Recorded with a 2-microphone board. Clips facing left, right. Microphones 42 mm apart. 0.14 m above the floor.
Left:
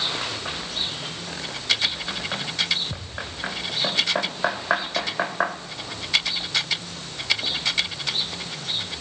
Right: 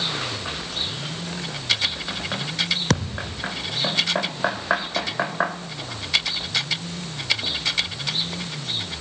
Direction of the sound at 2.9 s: 75° right (ahead or behind).